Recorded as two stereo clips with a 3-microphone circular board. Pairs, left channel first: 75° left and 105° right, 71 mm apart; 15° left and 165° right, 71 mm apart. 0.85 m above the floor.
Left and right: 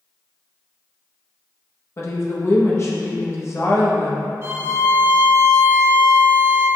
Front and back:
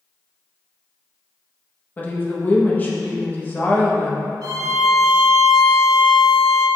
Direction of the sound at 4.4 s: 155° right.